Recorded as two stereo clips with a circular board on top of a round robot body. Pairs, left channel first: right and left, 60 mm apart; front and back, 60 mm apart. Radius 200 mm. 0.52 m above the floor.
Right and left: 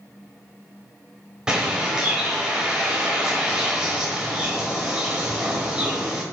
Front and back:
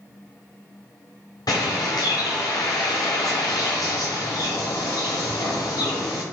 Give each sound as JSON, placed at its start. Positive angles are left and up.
{"t": 1.5, "sound": "a bird", "azimuth_deg": 5, "distance_m": 1.1}